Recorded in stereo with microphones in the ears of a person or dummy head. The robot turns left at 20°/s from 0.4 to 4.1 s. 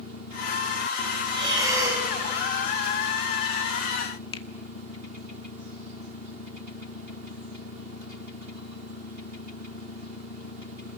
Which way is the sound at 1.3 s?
25° right (ahead or behind).